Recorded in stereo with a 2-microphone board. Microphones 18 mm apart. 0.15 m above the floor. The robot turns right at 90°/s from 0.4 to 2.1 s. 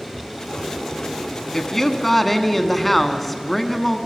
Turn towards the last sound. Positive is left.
turn(degrees=10)  # may be behind; listen again after turning